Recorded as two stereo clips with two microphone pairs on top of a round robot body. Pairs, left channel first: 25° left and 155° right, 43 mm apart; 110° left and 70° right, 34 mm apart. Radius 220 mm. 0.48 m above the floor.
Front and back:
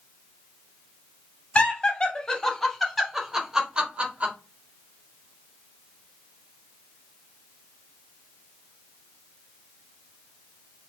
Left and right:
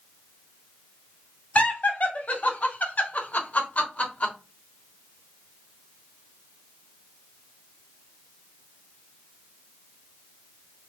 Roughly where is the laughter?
Left.